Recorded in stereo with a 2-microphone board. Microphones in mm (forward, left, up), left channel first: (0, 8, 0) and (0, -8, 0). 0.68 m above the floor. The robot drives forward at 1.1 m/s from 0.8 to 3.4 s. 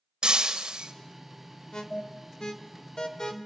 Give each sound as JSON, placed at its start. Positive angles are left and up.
{"t": 0.2, "sound": "breaking glass", "side_deg": -75, "distance_m": 2.0}
{"t": 1.7, "sound": "an alarm", "side_deg": 50, "distance_m": 1.9}